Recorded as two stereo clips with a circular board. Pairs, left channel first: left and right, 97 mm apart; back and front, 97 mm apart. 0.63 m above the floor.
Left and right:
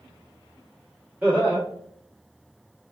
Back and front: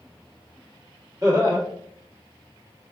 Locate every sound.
1.2 s laughter: 25° right, 1.3 m